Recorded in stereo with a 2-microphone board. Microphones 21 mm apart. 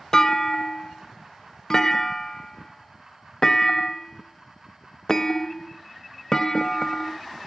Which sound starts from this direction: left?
A clunk, at 0.1 s.